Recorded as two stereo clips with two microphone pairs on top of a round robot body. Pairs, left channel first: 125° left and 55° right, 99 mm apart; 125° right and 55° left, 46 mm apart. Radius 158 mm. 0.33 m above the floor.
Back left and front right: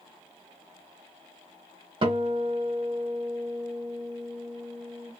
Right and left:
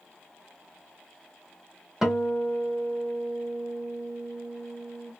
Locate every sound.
2.0 s a guitar: 20° right, 1.2 m